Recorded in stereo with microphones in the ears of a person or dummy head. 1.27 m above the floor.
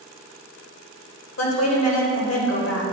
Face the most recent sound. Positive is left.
turn(degrees=80)